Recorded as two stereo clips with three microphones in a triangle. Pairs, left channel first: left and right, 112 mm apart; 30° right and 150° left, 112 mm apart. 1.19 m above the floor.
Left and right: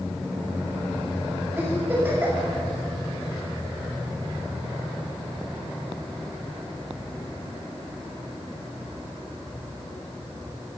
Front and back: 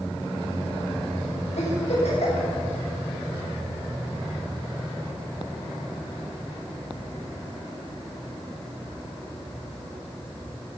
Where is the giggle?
15° right, 6 m.